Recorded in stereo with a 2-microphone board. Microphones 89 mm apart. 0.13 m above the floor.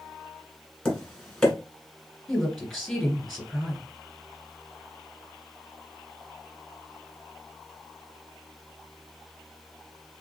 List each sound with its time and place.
0.8 s tapping: 10° left (ahead or behind), 1.6 m
2.3 s a woman speaking: centre (ahead or behind), 2 m